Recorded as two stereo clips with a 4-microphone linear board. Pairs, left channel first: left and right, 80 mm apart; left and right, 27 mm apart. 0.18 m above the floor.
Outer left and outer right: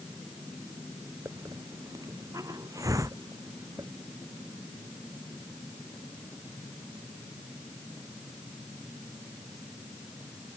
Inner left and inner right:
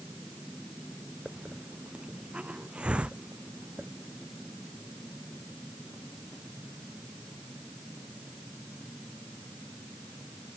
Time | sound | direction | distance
1.2 | a hiss | 45° right (ahead or behind) | ?